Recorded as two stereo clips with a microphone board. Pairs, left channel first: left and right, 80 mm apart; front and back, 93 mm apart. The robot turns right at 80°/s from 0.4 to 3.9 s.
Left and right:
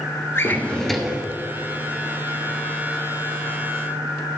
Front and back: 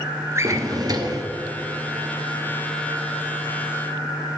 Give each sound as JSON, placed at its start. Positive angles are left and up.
{"t": 0.3, "sound": "a drawer", "azimuth_deg": 135, "distance_m": 1.1}